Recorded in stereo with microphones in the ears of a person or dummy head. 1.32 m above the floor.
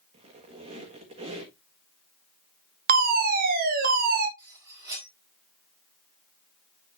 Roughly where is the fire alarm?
Right.